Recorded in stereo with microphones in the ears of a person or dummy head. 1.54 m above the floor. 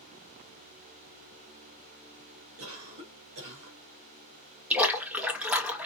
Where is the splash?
10° right (ahead or behind), 0.7 m.